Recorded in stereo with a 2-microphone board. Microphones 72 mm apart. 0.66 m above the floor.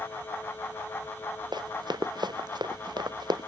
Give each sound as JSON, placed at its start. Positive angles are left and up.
{"t": 1.5, "sound": "running footsteps", "side_deg": -85}